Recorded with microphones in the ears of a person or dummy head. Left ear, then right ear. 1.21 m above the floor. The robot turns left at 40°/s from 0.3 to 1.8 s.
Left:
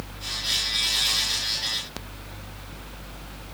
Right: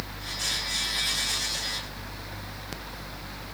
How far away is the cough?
No cough in this recording.